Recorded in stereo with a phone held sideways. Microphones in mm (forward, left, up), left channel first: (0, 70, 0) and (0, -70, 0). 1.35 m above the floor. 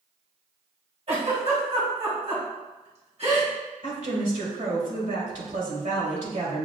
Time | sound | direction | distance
1.1 | a giggle | 50° right (ahead or behind) | 1.8 m
3.8 | a woman speaking | 70° right (ahead or behind) | 1.7 m